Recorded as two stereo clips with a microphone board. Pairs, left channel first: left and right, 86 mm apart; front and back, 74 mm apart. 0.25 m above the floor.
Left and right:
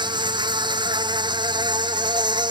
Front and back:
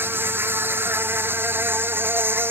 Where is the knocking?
I don't hear knocking.